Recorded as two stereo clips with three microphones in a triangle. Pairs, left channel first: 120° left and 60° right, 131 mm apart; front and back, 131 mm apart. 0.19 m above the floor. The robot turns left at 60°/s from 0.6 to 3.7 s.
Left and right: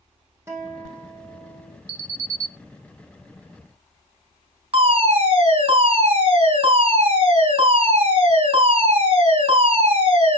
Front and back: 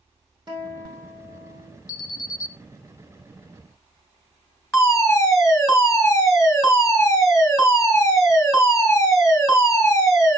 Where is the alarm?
5° left, 1.8 m; by 2.5 s 30° right, 1.8 m.